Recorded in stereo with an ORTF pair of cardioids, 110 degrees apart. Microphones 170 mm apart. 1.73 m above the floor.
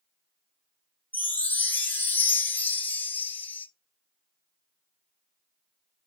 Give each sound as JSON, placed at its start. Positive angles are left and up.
{"t": 1.1, "sound": "a chime", "azimuth_deg": 10, "distance_m": 0.5}